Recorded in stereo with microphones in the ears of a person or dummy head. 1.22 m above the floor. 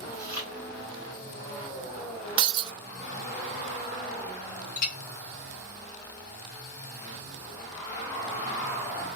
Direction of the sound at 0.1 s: 20° left (ahead or behind).